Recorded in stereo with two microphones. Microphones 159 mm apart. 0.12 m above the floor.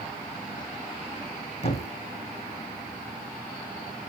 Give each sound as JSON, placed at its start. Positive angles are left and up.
{"t": 1.6, "sound": "a thud", "side_deg": 45, "distance_m": 1.8}